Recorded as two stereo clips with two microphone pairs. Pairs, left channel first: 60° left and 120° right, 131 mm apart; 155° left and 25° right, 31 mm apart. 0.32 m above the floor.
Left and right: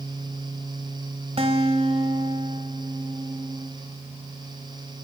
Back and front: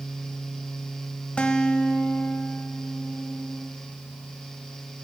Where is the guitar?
155° right, 0.9 m.